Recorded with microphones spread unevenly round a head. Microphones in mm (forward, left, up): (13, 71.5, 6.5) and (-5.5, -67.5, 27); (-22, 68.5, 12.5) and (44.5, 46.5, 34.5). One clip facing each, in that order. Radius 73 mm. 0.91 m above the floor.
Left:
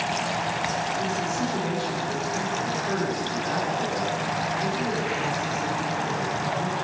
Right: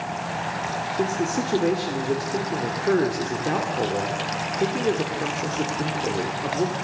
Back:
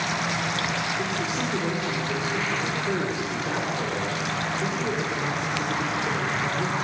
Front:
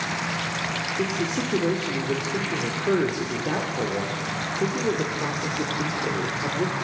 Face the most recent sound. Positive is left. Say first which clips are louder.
# right 3 dB, front 1 dB
turn(degrees=-70)